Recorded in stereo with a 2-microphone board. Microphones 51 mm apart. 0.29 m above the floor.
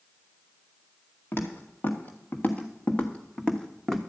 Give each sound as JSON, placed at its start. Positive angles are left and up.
{"t": 1.3, "sound": "footsteps", "side_deg": 55, "distance_m": 2.0}